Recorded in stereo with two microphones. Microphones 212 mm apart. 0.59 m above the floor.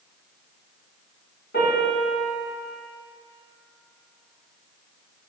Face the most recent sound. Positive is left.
turn(degrees=60)  # may be behind; listen again after turning